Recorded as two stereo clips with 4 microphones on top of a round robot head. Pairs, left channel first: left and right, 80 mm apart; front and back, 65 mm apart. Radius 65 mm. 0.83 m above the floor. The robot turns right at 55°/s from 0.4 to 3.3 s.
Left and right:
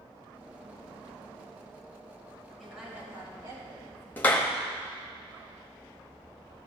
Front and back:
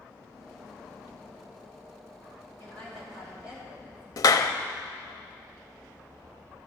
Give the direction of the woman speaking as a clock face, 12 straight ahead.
6 o'clock.